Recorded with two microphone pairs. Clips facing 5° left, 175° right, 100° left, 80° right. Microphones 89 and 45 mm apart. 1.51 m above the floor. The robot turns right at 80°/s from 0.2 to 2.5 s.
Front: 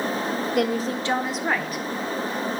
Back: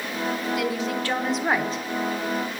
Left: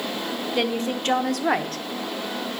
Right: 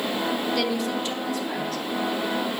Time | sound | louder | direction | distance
0.6 | a woman speaking | front 2 dB, left 1 dB | 30° left | 0.9 m